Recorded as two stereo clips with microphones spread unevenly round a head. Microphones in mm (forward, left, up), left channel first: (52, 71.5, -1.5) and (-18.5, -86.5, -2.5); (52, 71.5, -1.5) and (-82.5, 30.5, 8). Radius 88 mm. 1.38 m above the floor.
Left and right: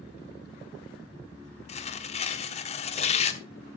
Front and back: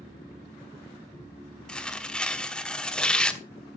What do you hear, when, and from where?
1.7 s tearing paper: 100° left, 1.2 m